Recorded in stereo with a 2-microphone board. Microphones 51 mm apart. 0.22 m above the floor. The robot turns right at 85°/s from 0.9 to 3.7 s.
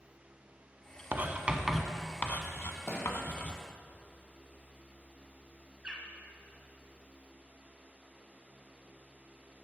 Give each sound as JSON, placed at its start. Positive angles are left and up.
{"t": 1.1, "sound": "writing", "side_deg": -45, "distance_m": 0.7}
{"t": 2.9, "sound": "a thud", "side_deg": 70, "distance_m": 2.0}
{"t": 5.8, "sound": "a bird", "side_deg": -20, "distance_m": 1.5}